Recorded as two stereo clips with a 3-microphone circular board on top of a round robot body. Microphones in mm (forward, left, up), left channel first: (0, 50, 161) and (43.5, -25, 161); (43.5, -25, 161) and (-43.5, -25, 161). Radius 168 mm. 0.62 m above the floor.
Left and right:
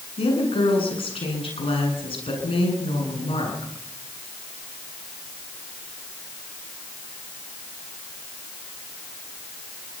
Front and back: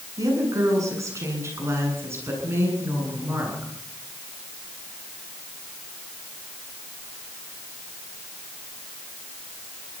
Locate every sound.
0.2 s a woman speaking: 130° left, 8.5 m; by 3.7 s 110° left, 9.5 m